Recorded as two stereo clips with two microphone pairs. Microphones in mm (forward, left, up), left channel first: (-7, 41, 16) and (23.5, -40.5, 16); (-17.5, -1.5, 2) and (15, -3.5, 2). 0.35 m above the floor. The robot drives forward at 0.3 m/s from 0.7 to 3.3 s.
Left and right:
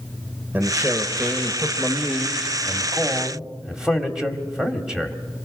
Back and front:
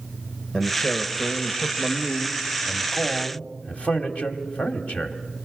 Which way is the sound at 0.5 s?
125° right.